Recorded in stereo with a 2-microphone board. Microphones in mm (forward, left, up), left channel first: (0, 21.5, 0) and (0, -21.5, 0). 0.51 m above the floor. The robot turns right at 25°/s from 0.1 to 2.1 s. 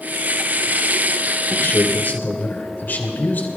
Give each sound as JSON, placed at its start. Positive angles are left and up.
{"t": 1.5, "sound": "a man speaking", "side_deg": 55, "distance_m": 2.5}